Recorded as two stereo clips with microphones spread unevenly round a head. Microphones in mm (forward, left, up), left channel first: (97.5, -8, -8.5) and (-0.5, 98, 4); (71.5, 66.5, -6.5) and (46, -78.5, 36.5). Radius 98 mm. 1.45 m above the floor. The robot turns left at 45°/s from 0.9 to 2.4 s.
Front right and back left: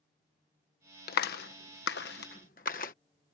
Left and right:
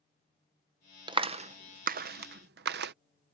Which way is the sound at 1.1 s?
40° right.